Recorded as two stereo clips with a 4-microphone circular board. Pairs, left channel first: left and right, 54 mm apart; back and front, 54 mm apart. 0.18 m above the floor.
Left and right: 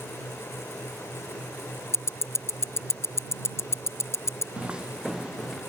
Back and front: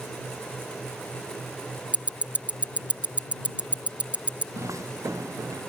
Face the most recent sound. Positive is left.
turn(degrees=0)